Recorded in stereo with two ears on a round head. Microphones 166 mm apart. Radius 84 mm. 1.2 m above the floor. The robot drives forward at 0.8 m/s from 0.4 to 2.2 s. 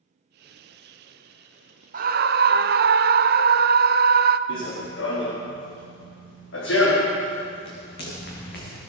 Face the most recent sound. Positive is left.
turn(degrees=55)  # may be behind; listen again after turning